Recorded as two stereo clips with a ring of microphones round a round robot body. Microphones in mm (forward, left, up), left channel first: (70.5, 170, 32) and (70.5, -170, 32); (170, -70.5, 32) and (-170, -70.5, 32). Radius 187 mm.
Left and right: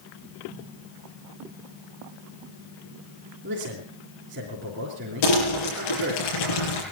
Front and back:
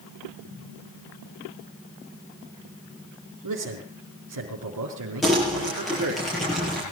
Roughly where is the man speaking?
Behind right.